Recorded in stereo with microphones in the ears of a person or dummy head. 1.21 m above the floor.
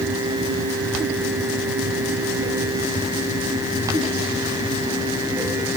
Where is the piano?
I don't hear a piano.